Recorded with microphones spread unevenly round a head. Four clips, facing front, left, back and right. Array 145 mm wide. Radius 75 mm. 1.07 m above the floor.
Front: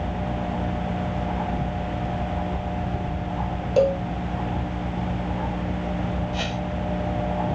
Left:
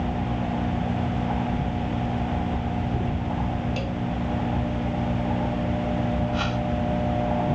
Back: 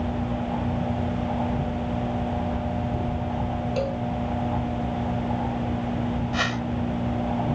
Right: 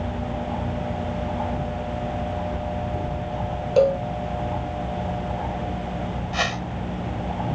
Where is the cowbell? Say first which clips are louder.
Right 12 dB, front 11 dB; 55° right.